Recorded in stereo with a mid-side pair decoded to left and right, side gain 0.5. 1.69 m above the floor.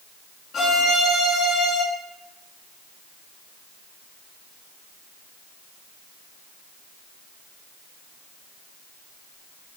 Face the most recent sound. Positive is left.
turn(degrees=45)